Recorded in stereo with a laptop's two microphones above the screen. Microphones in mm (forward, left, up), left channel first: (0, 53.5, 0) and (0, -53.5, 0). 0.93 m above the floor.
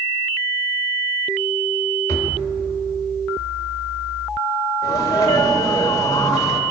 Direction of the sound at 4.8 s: 35° left (ahead or behind).